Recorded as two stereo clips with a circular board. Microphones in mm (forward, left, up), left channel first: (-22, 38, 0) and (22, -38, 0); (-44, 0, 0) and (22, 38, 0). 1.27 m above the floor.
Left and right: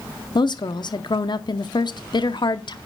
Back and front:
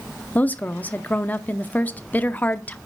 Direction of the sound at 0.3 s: 145° left.